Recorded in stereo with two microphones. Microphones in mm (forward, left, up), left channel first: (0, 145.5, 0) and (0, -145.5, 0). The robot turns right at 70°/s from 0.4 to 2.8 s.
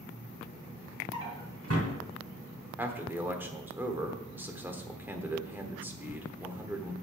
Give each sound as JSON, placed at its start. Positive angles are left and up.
{"t": 1.1, "sound": "a drawer", "side_deg": -10, "distance_m": 3.0}
{"t": 2.8, "sound": "a man speaking", "side_deg": -10, "distance_m": 1.1}